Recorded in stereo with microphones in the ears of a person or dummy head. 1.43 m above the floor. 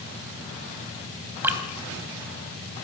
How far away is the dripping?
About 3 m.